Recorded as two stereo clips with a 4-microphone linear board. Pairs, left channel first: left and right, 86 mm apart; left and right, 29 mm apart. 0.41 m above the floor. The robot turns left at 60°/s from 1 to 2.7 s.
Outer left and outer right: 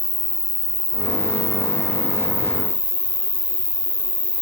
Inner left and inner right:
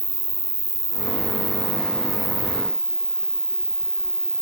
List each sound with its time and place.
0.0 s an insect: 100° right; by 4.4 s 160° left